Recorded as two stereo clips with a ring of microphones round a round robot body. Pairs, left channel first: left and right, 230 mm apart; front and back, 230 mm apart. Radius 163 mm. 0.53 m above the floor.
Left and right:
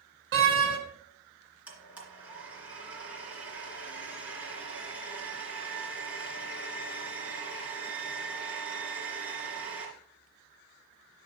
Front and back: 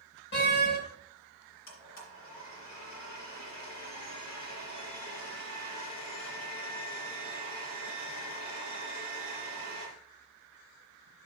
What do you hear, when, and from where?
0.3 s a door slam: 60° right, 1.9 m
1.7 s a blender: 5° right, 3 m